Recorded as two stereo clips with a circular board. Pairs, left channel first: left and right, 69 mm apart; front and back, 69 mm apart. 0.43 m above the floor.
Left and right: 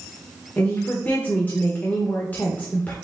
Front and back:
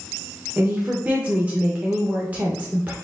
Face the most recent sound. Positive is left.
turn(degrees=130)